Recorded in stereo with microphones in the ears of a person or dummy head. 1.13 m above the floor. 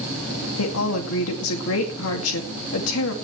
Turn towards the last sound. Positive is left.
turn(degrees=75)  # may be behind; listen again after turning